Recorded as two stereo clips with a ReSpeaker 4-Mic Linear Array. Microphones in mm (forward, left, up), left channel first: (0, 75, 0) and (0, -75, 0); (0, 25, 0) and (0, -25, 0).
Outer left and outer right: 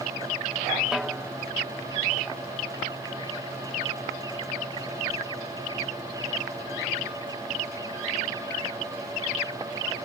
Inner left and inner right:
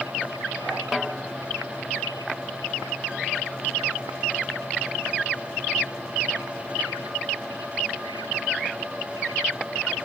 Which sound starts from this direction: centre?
A snare drum, at 0.9 s.